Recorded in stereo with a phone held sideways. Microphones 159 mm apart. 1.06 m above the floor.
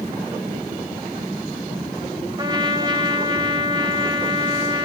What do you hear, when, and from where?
2.4 s a trumpet: 25° right (ahead or behind), 2.5 m